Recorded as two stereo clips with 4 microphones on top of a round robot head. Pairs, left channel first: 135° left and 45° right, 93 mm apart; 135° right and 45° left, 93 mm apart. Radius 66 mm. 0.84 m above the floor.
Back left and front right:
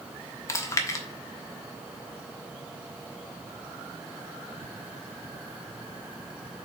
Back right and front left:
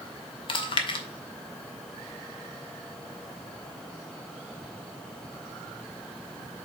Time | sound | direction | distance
0.5 | chewing | 165° right | 1.1 m